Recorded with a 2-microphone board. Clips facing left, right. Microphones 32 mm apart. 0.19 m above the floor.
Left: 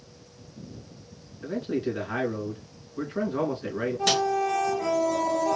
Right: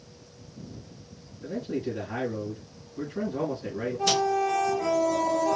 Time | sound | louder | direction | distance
1.4 | a man speaking | left 3 dB | 55° left (ahead or behind) | 3 m
4.1 | a snare drum | left 1 dB | 85° left | 2.0 m